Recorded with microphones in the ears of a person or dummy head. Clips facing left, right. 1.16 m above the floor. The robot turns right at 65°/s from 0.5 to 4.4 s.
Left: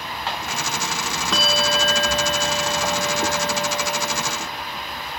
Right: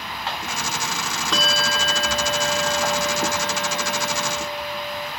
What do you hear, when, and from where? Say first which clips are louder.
1.3 s a bell: left 3 dB; straight ahead, 0.8 m; by 5.1 s 160° right, 0.8 m